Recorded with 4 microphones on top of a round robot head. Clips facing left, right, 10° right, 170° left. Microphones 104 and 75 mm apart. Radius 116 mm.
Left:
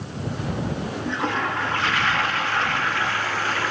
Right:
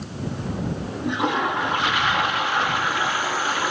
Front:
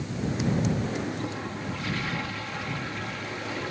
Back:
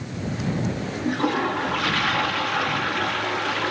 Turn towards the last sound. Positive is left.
turn(degrees=-165)